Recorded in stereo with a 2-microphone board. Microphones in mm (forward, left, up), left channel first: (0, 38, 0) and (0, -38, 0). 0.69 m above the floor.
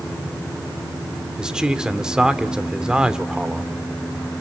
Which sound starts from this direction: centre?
A man speaking, at 1.4 s.